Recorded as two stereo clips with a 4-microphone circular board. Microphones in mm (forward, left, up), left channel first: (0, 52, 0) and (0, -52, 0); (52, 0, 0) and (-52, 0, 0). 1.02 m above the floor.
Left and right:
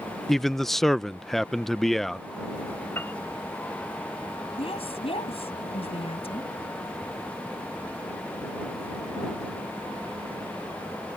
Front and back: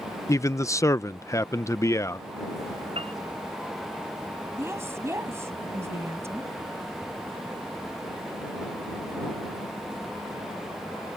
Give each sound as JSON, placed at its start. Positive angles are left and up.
{"t": 0.3, "sound": "a man speaking", "azimuth_deg": 5}
{"t": 3.0, "sound": "a piano", "azimuth_deg": 160}
{"t": 4.6, "sound": "a woman speaking", "azimuth_deg": 115}